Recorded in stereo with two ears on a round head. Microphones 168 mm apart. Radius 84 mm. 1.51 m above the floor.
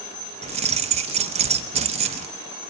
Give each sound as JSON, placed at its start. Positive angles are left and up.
{"t": 0.4, "sound": "keys jangling", "side_deg": -35, "distance_m": 0.8}